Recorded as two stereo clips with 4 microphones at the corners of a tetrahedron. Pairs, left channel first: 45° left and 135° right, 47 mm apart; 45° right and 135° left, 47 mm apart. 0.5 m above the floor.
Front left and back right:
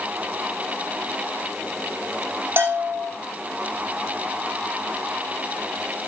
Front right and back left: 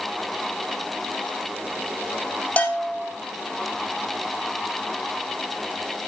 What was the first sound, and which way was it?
A bell, 100° right.